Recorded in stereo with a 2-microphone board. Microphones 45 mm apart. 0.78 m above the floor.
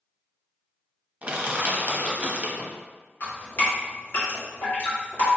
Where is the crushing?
30° right (ahead or behind), 0.8 m.